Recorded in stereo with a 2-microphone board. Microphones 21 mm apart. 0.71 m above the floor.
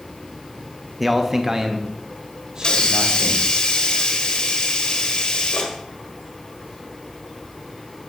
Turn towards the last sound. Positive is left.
turn(degrees=45)  # may be behind; listen again after turning